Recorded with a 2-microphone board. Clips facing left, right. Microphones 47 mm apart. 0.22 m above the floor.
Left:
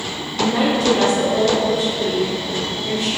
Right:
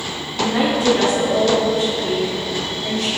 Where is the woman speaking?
5° right (ahead or behind), 1.2 m; by 3.1 s 55° right (ahead or behind), 1.9 m.